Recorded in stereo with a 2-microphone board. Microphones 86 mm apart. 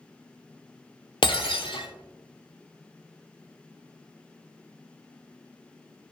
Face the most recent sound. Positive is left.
turn(degrees=80)